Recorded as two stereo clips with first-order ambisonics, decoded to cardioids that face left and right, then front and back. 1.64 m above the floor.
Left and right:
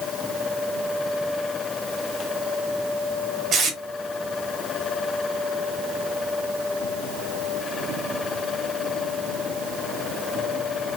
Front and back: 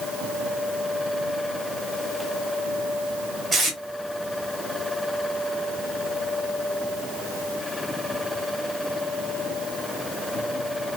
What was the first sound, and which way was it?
Tape being pulled, 110° right.